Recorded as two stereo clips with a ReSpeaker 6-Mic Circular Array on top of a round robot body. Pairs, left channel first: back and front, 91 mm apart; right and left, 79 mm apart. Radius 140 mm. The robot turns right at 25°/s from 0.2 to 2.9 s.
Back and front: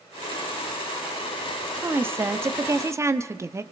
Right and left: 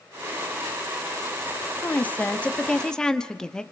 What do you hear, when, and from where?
1.8 s a woman speaking: 45° right, 1.3 m; by 3.6 s 15° right, 1.3 m